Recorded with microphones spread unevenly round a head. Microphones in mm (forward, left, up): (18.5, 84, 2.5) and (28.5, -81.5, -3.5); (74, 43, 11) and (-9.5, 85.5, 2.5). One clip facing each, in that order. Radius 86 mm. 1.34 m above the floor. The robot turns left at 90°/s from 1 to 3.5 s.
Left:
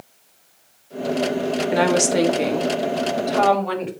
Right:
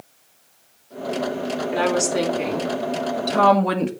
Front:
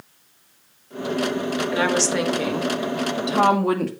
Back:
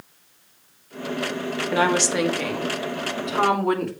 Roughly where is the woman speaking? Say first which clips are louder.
Left 3 dB, back 2 dB; left.